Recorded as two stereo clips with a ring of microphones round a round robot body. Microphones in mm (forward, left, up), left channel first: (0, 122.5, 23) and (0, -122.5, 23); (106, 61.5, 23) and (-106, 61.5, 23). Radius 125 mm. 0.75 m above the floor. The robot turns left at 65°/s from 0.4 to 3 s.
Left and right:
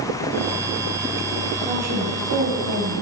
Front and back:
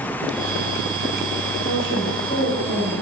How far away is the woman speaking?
About 3 m.